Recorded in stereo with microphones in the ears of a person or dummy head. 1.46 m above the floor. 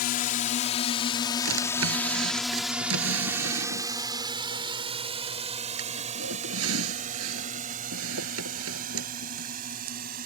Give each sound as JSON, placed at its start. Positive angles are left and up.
{"t": 0.0, "sound": "a drone", "side_deg": 45}
{"t": 1.4, "sound": "a drawer", "side_deg": -85}